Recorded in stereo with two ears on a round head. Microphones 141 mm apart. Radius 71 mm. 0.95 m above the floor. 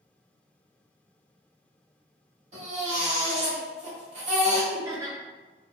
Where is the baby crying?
45° right (ahead or behind), 1.3 m.